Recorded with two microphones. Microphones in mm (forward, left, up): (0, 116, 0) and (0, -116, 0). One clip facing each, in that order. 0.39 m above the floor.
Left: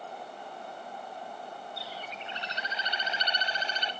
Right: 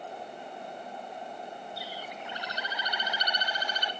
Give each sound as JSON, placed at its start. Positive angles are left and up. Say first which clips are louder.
{"t": 1.8, "sound": "a bird", "louder": "right 1 dB", "side_deg": 25, "distance_m": 0.6}